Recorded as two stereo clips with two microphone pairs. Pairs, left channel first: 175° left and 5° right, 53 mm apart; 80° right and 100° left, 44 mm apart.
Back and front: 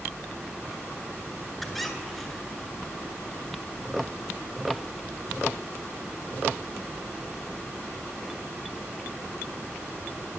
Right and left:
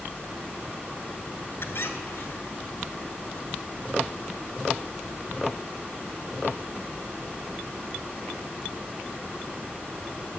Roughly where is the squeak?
Right.